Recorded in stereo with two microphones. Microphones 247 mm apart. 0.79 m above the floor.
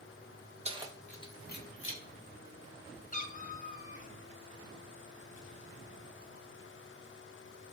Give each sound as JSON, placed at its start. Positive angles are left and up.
{"t": 0.7, "sound": "keys jangling", "side_deg": -25, "distance_m": 0.6}
{"t": 3.1, "sound": "a cat meowing", "side_deg": 35, "distance_m": 0.5}